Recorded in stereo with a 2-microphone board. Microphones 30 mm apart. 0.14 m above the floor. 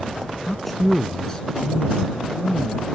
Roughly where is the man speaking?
Centre.